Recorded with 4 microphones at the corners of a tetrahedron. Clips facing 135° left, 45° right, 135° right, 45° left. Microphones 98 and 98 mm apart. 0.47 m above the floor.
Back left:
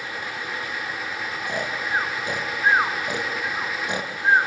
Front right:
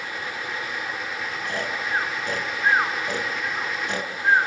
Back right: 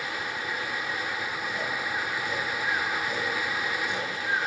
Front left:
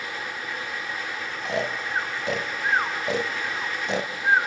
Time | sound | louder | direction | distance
1.4 | snoring | back left 1 dB, front left 8 dB | 60° left | 1.9 m